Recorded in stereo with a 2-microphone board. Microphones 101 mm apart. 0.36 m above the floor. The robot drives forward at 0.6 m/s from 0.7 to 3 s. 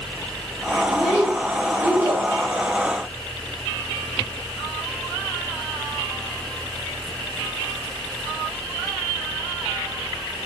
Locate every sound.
0.9 s a child speaking: 15° right (ahead or behind), 1.9 m; by 2.2 s 20° right (ahead or behind), 1.2 m